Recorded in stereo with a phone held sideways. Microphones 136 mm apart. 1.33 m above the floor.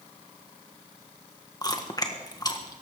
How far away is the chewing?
About 1.5 m.